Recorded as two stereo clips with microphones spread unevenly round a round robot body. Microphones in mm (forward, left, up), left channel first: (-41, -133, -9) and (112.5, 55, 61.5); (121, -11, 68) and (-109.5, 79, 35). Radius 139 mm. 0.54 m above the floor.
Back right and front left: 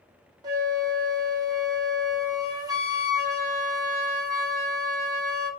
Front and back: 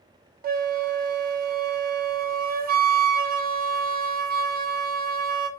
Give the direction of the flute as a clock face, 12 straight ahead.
7 o'clock.